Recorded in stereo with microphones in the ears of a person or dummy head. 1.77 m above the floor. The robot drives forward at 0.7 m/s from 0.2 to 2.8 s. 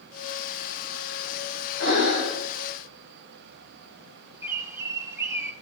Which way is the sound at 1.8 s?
70° left (ahead or behind).